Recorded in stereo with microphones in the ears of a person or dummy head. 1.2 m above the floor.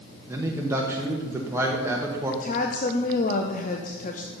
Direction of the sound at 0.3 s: 15° right (ahead or behind).